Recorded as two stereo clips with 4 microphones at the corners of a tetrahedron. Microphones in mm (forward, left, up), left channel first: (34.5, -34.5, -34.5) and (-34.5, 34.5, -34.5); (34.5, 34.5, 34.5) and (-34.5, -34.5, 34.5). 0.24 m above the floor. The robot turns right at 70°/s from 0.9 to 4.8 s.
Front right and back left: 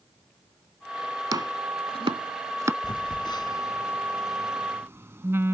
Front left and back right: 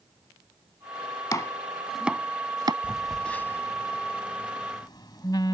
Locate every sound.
1.3 s chopping: 95° left; by 2.7 s 165° right
2.8 s a phone buzzing: 60° right; by 5.5 s 75° left